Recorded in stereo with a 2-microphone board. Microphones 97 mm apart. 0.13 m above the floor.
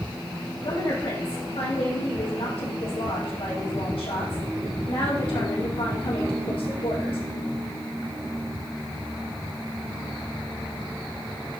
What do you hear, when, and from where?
0.6 s a woman speaking: 70° left (ahead or behind), 5 m